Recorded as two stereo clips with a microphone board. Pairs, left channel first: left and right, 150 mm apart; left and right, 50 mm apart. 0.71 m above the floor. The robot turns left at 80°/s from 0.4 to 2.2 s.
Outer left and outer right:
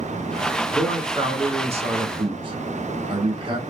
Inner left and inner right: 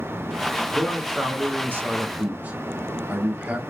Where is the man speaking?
5° right, 1.2 m; by 3.6 s 120° right, 1.2 m.